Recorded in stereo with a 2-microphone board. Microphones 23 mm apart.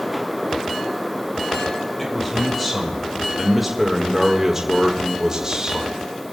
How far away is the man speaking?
About 2 m.